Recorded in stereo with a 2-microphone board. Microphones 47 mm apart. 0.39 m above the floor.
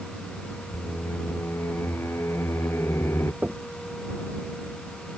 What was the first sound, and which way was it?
Singing, 70° left (ahead or behind).